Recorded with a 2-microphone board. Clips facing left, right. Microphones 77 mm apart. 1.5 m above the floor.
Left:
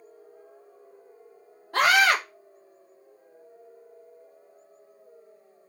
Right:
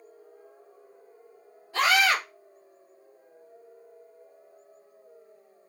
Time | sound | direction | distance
1.7 | a scream | 55° left (ahead or behind) | 1.6 m